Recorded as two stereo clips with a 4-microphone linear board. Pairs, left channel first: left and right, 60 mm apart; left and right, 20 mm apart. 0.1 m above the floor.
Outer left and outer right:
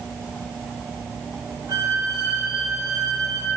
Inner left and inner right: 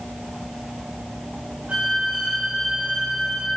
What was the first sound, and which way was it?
A violin, 80° right.